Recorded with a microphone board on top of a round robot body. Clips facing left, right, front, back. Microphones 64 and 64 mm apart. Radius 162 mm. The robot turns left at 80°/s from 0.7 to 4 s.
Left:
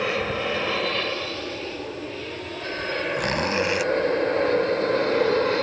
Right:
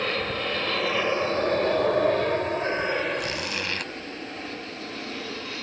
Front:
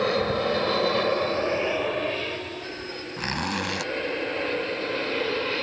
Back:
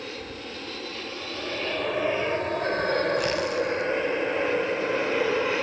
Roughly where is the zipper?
Ahead left.